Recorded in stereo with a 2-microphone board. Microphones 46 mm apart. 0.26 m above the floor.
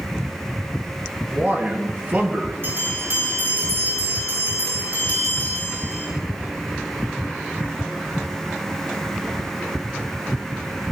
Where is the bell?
50° right (ahead or behind), 8.5 m.